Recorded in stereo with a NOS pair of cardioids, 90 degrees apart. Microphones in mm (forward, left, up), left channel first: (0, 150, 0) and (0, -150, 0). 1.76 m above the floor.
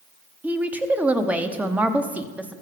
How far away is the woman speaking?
About 1.1 m.